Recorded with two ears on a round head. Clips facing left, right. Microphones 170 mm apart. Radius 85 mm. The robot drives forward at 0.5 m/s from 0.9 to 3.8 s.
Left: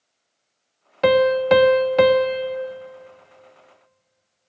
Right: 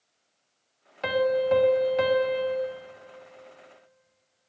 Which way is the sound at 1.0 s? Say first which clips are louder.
Left 8 dB; 60° left (ahead or behind).